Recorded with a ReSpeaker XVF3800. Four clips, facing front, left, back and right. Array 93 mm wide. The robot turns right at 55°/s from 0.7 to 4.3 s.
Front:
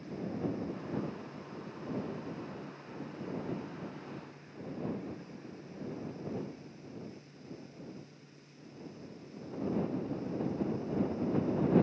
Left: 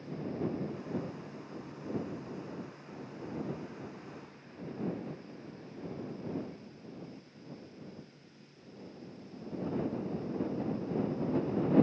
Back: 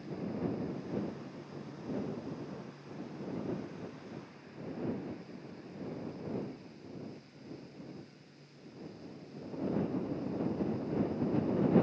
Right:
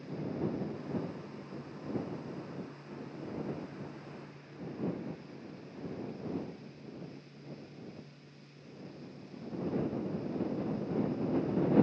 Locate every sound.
Only background noise.